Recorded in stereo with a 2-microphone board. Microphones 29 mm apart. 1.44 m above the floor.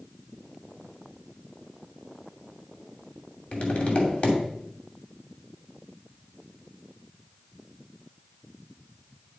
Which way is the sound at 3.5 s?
65° left (ahead or behind).